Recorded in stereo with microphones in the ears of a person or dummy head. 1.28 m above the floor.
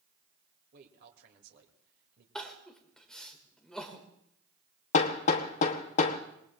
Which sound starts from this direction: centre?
Crying, at 2.4 s.